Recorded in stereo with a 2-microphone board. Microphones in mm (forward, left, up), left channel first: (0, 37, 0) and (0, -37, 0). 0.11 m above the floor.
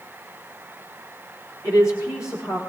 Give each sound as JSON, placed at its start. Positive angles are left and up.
{"t": 1.6, "sound": "a woman speaking", "side_deg": 50, "distance_m": 9.0}